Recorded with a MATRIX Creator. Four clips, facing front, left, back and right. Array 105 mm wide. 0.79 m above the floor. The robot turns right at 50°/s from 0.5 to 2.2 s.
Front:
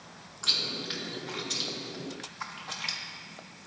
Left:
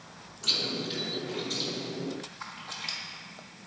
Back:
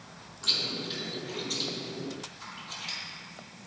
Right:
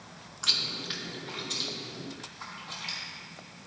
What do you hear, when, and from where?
0.4 s chewing: 70° right, 0.6 m; by 3.0 s 15° left, 0.6 m